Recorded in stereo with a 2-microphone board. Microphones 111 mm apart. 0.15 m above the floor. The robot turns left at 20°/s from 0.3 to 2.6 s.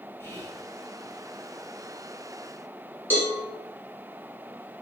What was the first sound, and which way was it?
Whispering, 20° left (ahead or behind).